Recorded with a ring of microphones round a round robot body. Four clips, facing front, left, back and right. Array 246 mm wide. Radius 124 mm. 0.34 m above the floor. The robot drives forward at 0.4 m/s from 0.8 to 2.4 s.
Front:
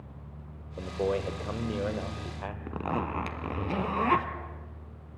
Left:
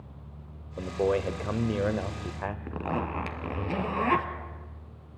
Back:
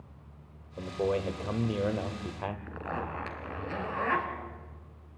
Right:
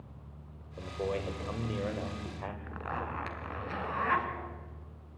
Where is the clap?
I don't hear a clap.